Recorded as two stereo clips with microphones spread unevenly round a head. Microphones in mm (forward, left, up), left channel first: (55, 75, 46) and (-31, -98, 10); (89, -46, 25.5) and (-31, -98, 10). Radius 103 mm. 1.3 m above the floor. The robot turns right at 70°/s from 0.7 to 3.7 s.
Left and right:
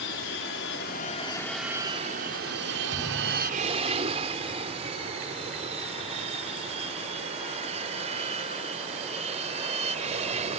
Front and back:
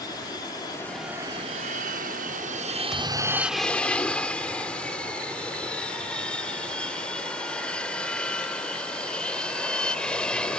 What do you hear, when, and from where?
0.0 s an aircraft: 95° left; by 10.6 s 60° right
2.9 s a thud: 65° right; by 3.9 s 10° right